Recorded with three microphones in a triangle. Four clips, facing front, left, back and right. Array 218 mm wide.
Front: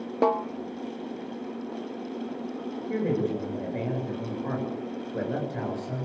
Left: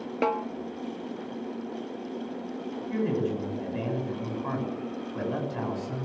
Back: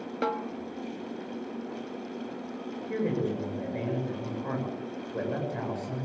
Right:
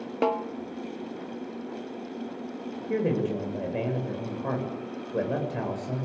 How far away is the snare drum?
About 1.1 m.